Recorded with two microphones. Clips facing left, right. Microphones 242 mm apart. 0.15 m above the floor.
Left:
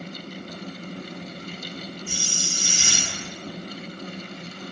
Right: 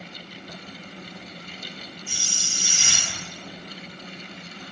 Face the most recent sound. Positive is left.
turn(degrees=45)  # may be behind; listen again after turning